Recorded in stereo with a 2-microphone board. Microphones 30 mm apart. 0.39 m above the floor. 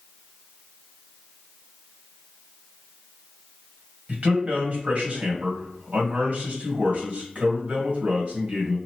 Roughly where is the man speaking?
Right.